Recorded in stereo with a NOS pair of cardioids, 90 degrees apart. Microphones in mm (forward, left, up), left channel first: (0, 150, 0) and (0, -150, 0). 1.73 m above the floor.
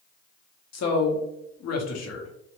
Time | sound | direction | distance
0.7 | a man speaking | 60° left | 1.0 m